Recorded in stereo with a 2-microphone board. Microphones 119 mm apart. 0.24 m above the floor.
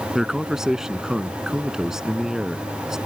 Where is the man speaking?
5° right (ahead or behind).